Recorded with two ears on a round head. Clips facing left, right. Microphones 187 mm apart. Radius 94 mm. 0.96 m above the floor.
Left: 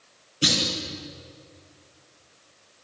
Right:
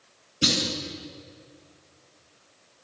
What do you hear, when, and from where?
0.4 s a clunk: 25° right (ahead or behind), 5.5 m